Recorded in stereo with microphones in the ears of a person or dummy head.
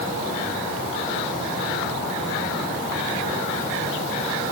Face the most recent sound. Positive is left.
No sound to turn to.